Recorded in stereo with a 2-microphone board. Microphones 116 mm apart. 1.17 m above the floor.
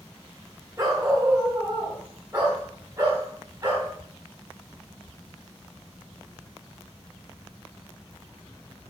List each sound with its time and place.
0.8 s a dog barking: 30° right (ahead or behind), 2 m